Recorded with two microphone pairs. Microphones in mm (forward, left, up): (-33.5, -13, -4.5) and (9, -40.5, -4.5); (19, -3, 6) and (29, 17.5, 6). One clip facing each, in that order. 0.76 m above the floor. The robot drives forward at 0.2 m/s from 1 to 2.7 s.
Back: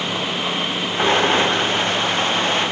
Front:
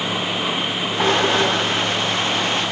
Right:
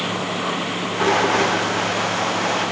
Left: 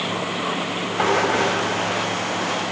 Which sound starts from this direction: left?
Knocking, at 1.0 s.